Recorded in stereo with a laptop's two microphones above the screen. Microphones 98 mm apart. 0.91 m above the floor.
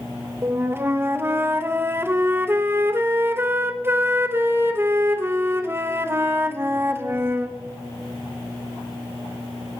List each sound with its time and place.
0.4 s a flute: 25° right (ahead or behind), 0.6 m